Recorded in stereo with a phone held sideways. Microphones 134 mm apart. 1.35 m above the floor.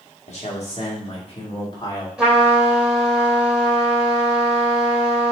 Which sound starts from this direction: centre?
A trumpet, at 2.2 s.